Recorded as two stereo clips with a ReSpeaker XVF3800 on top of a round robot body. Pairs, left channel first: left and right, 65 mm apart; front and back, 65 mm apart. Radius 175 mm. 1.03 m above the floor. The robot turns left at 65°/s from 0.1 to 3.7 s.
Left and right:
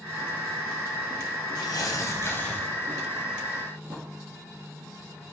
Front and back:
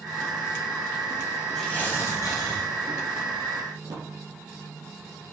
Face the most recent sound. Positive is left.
turn(degrees=-150)